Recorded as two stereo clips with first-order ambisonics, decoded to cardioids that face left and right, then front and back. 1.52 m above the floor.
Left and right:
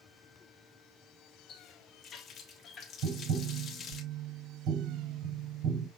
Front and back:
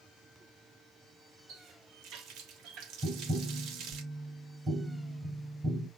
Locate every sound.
1.5 s a running tap: 150° left, 1.0 m
3.0 s tapping: 110° right, 4.5 m